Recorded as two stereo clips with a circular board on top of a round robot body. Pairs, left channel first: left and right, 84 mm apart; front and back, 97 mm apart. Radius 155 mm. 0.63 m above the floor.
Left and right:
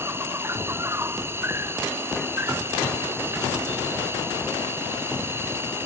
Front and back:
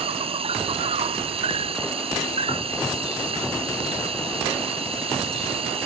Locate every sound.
0.0 s an insect: 155° right